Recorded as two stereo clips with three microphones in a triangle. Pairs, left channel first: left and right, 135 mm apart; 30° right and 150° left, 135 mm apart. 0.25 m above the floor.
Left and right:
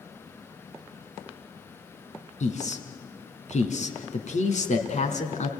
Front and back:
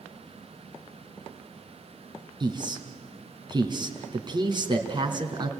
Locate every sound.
2.4 s a man speaking: 100° left, 2.5 m